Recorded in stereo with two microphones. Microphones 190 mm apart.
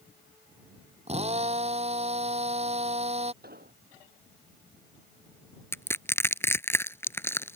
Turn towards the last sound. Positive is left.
turn(degrees=10)  # may be behind; listen again after turning